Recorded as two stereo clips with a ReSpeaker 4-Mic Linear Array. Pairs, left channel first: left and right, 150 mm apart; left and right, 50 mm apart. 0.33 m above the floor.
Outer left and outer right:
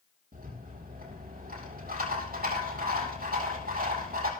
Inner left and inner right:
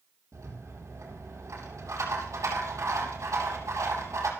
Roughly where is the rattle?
Right.